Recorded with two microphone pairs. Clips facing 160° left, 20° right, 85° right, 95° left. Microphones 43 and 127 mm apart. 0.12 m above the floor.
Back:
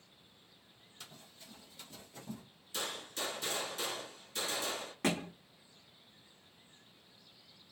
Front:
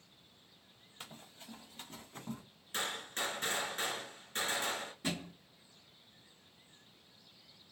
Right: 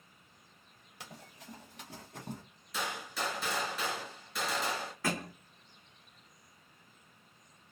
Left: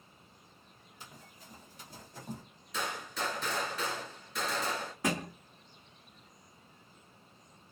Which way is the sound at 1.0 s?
70° right.